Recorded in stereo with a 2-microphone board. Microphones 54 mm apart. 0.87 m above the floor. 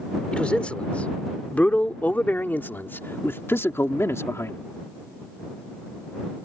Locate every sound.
0.3 s a man speaking: 20° left (ahead or behind); by 4.6 s 60° left (ahead or behind)